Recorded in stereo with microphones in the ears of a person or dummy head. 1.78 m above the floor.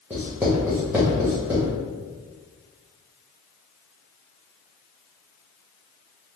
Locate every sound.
0.1 s writing: 5° right (ahead or behind), 0.8 m